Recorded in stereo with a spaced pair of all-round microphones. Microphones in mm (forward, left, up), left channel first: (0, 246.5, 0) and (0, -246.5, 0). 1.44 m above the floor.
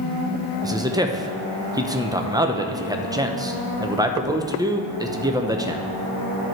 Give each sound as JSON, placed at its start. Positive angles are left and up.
{"t": 0.6, "sound": "a man speaking", "side_deg": -10, "distance_m": 0.7}